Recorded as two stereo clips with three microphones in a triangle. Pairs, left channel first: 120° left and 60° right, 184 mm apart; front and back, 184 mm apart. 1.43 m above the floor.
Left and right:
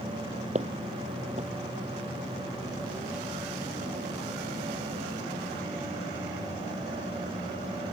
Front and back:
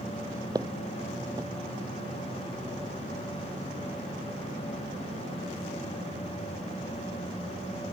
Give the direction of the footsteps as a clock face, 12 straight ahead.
4 o'clock.